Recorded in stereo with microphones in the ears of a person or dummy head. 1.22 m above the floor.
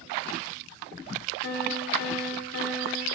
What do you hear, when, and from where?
1.4 s a piano: 60° left (ahead or behind), 2.5 m